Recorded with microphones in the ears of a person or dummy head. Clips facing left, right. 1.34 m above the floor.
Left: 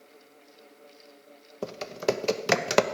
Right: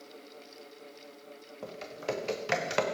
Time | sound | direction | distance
1.6 | typing on a keyboard | 60° left (ahead or behind) | 0.9 m